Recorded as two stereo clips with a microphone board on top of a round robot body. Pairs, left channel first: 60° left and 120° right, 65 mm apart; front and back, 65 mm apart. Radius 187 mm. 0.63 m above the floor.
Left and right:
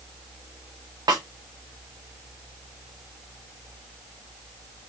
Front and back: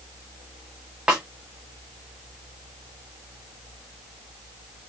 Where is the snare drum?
105° right, 0.7 m.